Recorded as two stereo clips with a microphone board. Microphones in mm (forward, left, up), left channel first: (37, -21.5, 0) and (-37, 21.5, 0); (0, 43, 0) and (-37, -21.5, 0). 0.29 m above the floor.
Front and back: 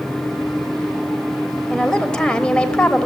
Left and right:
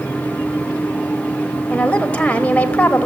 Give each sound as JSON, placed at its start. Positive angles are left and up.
{"t": 1.7, "sound": "a woman speaking", "azimuth_deg": 30, "distance_m": 1.0}